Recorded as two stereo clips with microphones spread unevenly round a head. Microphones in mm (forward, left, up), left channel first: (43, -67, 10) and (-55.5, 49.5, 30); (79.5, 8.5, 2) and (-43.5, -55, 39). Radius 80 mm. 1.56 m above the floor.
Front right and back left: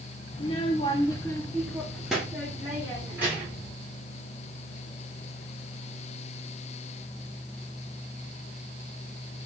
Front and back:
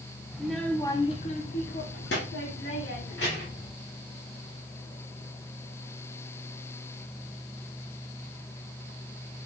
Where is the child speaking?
95° right, 0.6 m; by 3.7 s 55° left, 1.7 m.